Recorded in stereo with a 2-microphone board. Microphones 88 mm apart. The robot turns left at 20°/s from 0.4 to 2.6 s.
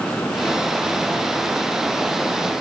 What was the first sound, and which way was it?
Only background noise.